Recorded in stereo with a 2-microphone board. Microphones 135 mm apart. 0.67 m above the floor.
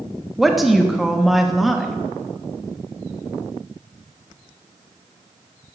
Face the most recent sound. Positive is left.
turn(degrees=0)  # may be behind; listen again after turning